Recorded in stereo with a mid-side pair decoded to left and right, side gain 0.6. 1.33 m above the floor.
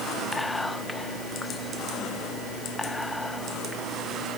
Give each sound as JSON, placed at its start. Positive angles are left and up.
{"t": 0.3, "sound": "whispering", "azimuth_deg": 10, "distance_m": 1.1}